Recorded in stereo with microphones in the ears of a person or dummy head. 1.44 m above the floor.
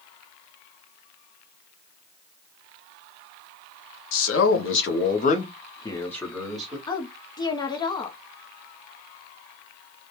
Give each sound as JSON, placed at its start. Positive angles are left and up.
{"t": 4.1, "sound": "a man speaking", "side_deg": 70, "distance_m": 0.8}
{"t": 6.9, "sound": "a woman speaking", "side_deg": 20, "distance_m": 0.6}